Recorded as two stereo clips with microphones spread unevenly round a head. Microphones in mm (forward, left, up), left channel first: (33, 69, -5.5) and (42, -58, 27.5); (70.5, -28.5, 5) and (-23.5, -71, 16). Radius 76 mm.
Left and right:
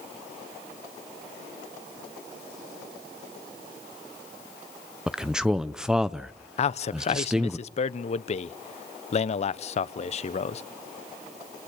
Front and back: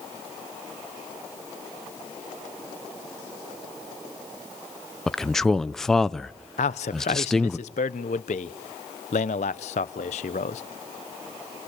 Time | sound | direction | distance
5.1 | a man speaking | 70° right | 0.5 m
6.6 | a man speaking | 55° left | 0.9 m